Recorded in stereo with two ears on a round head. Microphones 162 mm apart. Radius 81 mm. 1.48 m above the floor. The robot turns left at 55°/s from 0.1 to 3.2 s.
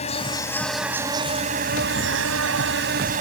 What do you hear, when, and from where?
0.0 s an insect: 35° left; by 3.2 s 135° right